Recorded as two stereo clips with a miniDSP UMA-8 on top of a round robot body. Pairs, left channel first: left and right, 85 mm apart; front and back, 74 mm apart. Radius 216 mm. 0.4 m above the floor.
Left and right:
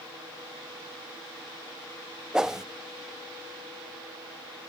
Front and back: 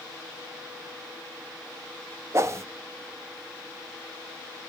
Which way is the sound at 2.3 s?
170° right.